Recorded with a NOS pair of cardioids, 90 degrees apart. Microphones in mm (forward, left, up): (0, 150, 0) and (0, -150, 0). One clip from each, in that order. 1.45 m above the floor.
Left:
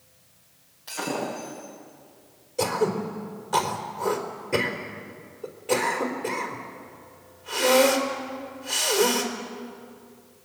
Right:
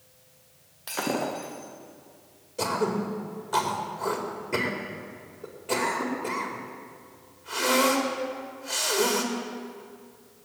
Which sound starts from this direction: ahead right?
Breaking glass, at 0.9 s.